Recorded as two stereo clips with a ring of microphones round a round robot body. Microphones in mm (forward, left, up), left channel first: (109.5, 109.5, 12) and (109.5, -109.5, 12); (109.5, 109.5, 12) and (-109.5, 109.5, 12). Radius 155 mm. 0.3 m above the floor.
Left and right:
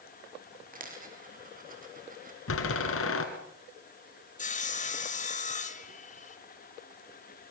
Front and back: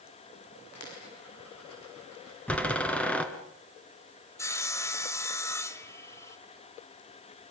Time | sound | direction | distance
0.7 | a dropped coin | 40° right | 5.5 m
2.5 | a door slam | 85° left | 3.5 m
4.4 | sawing | 70° left | 1.6 m